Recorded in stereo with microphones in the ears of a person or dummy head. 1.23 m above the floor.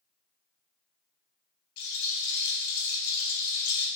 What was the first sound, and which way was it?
A rattle, 70° left (ahead or behind).